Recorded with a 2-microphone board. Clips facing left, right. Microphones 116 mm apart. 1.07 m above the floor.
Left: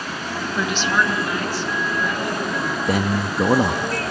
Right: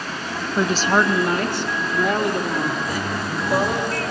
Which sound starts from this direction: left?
A man speaking, at 2.9 s.